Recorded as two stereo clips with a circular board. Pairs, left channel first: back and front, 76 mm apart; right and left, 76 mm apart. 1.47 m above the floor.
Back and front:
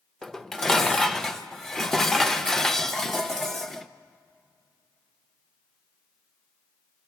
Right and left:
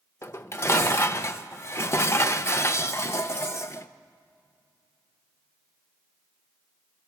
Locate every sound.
0.2 s dishes clattering: 100° right, 0.6 m